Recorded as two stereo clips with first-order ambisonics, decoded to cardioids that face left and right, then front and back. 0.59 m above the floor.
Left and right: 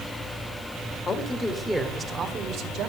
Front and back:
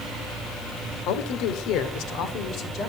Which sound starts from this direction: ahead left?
A man speaking, at 1.1 s.